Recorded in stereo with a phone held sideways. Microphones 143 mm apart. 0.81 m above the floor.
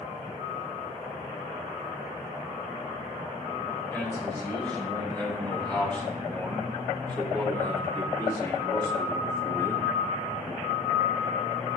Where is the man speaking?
10° left (ahead or behind), 4 m; by 9.9 s 20° left (ahead or behind), 1.0 m.